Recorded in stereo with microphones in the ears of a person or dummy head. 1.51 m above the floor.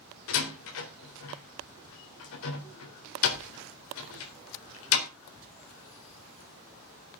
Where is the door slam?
75° left (ahead or behind), 3.5 m.